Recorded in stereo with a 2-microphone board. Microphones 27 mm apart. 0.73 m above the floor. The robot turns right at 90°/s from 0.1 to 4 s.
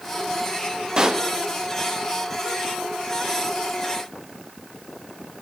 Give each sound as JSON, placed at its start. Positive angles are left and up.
{"t": 1.0, "sound": "a pop", "side_deg": -30, "distance_m": 0.6}